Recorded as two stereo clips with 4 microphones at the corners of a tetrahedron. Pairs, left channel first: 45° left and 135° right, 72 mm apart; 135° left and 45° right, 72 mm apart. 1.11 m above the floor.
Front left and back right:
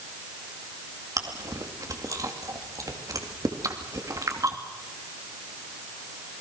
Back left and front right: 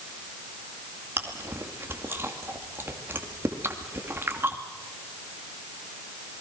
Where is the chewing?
100° right, 2.5 m.